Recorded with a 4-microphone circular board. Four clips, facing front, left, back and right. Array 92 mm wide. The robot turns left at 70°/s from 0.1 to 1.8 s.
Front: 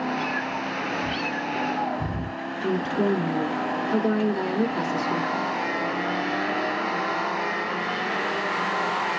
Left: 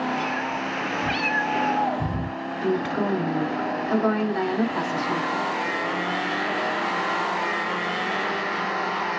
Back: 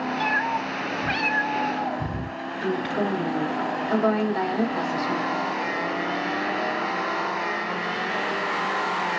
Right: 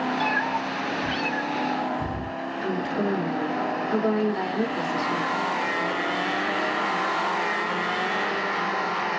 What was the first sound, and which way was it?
A cat meowing, 145° right.